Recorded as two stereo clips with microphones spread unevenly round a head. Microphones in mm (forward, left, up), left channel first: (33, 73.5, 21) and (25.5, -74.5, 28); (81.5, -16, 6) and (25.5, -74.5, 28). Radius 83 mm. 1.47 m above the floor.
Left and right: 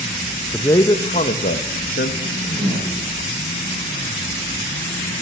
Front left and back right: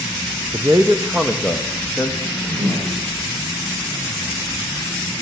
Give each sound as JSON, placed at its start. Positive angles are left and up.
{"t": 0.5, "sound": "a man speaking", "azimuth_deg": 165, "distance_m": 1.2}
{"t": 2.2, "sound": "a whoosh", "azimuth_deg": -160, "distance_m": 8.0}